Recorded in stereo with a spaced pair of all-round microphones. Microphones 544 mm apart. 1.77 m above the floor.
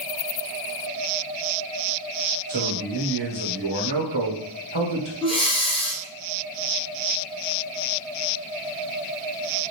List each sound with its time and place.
2.5 s a man speaking: 50° right (ahead or behind), 1.2 m
5.2 s breathing: 10° left (ahead or behind), 0.8 m